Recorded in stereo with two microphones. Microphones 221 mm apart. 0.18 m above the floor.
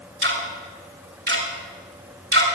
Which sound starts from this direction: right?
Ticking, at 0.2 s.